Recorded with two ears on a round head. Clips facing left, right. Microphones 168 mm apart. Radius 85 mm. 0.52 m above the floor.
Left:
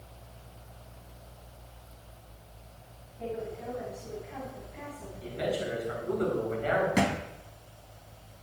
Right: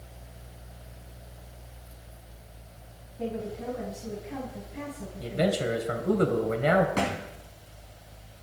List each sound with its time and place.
3.2 s a woman speaking: 50° right (ahead or behind), 4 m
5.2 s a man speaking: 70° right (ahead or behind), 3 m
7.0 s a thud: 15° left (ahead or behind), 2 m